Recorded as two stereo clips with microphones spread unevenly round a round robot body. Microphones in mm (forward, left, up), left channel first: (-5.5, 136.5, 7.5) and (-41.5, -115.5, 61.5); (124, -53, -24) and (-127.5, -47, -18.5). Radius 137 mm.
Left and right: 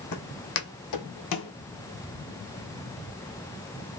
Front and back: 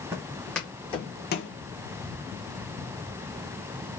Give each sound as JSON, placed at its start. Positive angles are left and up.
{"t": 0.1, "sound": "footsteps", "azimuth_deg": 100, "distance_m": 1.0}